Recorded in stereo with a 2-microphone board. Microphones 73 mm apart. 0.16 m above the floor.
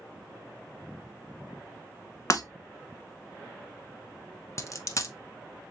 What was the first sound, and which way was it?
Breaking glass, 50° left (ahead or behind).